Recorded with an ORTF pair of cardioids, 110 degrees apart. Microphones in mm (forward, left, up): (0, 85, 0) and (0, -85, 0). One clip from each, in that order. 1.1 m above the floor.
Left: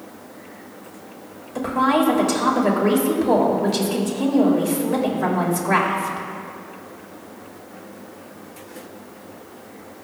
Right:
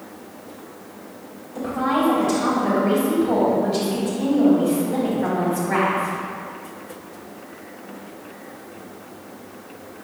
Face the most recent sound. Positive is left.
turn(degrees=60)